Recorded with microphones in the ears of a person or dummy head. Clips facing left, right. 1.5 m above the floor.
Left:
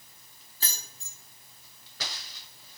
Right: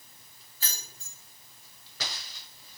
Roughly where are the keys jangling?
Left.